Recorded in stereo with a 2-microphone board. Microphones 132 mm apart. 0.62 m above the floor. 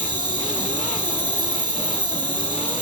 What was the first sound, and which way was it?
An insect, 35° right (ahead or behind).